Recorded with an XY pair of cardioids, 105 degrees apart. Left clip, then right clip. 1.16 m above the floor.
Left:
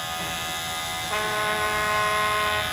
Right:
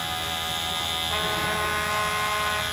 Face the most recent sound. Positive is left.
turn(degrees=20)